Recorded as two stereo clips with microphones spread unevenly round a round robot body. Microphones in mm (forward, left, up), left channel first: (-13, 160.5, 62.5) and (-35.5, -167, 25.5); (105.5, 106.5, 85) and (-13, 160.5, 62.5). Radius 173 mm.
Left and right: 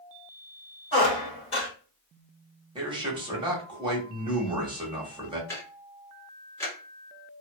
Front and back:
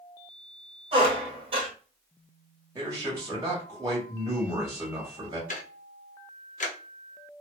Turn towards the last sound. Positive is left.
turn(degrees=0)